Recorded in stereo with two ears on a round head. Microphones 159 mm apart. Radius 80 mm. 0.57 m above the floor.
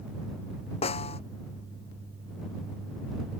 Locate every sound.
0.8 s a snare drum: 35° left (ahead or behind)